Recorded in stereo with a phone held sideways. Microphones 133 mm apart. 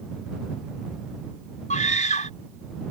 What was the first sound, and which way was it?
A scream, 75° left (ahead or behind).